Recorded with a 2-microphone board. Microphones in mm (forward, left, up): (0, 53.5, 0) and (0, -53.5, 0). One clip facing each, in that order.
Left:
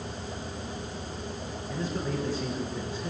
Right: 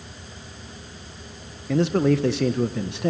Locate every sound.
1.7 s a man speaking: 75° right (ahead or behind), 1.2 m